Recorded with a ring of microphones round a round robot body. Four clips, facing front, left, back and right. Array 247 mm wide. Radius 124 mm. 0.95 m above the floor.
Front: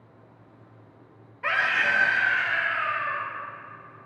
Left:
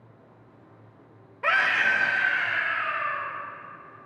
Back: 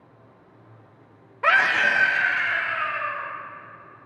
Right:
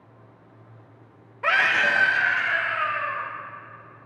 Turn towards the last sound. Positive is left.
turn(degrees=-100)